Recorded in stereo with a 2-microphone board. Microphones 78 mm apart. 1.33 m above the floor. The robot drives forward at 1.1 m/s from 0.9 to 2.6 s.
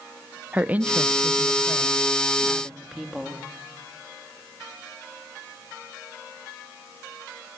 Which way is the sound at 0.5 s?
20° right (ahead or behind).